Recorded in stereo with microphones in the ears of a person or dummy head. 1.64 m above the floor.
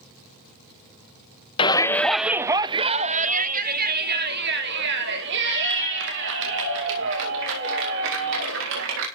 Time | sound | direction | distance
1.6 | a shout | 25° left (ahead or behind) | 0.6 m